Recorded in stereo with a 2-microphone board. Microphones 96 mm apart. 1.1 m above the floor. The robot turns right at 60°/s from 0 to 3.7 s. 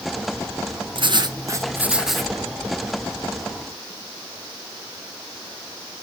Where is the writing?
70° right, 0.9 m; by 2.3 s 10° left, 0.9 m.